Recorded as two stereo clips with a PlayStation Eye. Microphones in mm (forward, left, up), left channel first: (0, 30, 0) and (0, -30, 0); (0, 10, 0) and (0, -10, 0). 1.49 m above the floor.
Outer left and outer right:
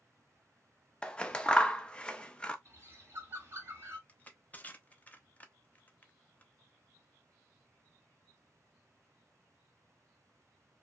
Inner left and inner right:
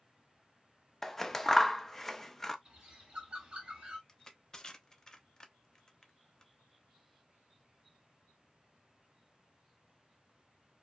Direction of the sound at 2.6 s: 40° right (ahead or behind).